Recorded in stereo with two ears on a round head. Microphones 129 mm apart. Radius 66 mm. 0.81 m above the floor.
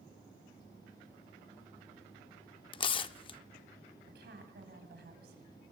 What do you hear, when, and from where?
2.7 s tearing paper: 35° left (ahead or behind), 0.5 m
4.1 s a woman speaking: 80° right, 6.5 m